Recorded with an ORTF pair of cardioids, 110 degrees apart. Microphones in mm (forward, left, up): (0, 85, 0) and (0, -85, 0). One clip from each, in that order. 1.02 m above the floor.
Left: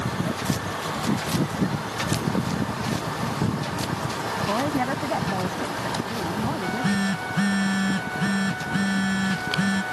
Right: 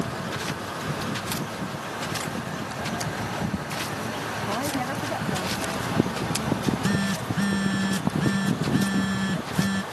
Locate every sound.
4.5 s a woman speaking: 30° left
6.5 s a phone buzzing: 15° left